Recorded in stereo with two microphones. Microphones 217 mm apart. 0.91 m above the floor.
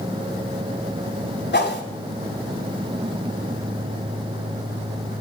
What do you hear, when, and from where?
1.5 s a whoosh: 55° left (ahead or behind), 2 m